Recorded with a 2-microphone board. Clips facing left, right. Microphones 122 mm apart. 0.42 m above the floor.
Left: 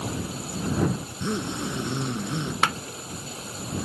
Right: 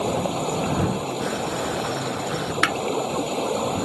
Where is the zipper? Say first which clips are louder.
Right 4 dB; 30° left (ahead or behind).